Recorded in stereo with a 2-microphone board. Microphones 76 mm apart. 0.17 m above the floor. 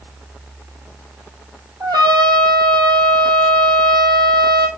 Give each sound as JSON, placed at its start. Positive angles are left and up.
{"t": 1.8, "sound": "a trumpet", "side_deg": -70, "distance_m": 4.0}